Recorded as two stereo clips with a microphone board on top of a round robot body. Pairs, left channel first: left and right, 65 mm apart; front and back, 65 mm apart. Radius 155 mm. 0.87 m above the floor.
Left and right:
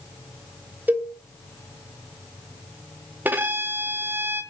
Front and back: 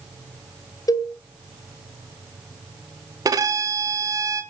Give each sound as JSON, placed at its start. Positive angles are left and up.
{"t": 0.9, "sound": "a cowbell", "azimuth_deg": -25, "distance_m": 3.0}
{"t": 3.2, "sound": "a violin", "azimuth_deg": -155, "distance_m": 0.7}